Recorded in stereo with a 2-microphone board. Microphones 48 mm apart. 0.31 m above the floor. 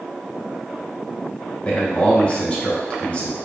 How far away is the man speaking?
About 1.8 m.